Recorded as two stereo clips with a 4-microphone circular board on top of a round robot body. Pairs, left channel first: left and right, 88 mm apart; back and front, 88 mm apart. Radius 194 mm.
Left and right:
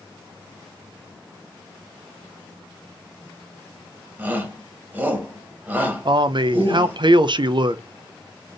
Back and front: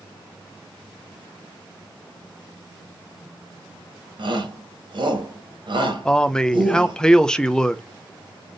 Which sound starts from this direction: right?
A man speaking, at 6.0 s.